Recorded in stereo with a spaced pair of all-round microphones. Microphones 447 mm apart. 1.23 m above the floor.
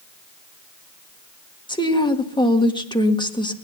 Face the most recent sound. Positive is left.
turn(degrees=10)  # may be behind; listen again after turning